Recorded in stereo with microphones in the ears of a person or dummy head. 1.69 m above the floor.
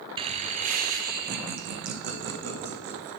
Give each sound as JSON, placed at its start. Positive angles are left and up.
{"t": 0.2, "sound": "laughter", "side_deg": -40, "distance_m": 0.5}